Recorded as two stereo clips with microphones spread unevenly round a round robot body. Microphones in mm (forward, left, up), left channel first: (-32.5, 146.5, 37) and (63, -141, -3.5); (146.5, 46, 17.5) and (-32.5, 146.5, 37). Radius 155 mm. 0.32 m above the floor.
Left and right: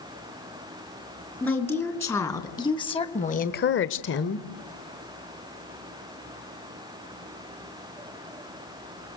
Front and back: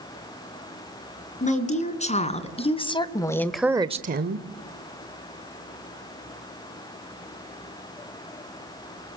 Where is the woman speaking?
25° left, 4 m; by 4.5 s 170° left, 1.3 m.